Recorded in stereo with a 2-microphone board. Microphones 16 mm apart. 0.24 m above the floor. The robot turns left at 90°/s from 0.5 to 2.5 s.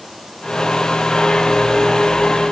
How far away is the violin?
I don't hear a violin.